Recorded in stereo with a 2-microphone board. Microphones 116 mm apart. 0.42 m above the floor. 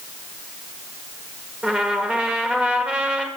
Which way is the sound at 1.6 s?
10° right (ahead or behind).